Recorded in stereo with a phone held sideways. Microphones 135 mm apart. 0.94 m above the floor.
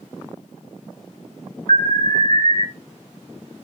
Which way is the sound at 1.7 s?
70° right (ahead or behind).